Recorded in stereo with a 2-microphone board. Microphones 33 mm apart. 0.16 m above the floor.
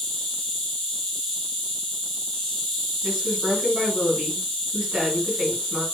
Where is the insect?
15° left (ahead or behind), 1.7 m.